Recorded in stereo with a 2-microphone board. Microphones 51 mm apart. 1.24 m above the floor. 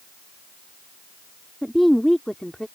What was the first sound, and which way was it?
A woman speaking, centre (ahead or behind).